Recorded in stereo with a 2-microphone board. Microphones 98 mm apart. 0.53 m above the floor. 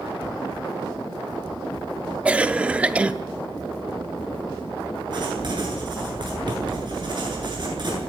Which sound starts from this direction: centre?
A cough, at 2.2 s.